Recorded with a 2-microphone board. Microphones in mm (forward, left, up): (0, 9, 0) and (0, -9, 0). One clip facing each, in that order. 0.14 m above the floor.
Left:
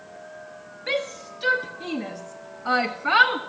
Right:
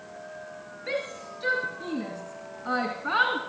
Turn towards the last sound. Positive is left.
turn(degrees=30)  # may be behind; listen again after turning